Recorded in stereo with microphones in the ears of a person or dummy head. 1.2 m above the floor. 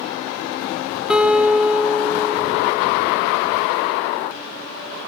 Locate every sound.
1.1 s a guitar: 10° right (ahead or behind), 0.7 m